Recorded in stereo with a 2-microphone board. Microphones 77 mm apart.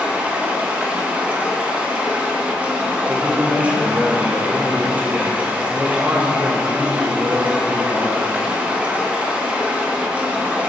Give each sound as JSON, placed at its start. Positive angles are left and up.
{"t": 0.0, "sound": "running water", "side_deg": -15, "distance_m": 0.9}
{"t": 3.1, "sound": "a man speaking", "side_deg": -15, "distance_m": 1.0}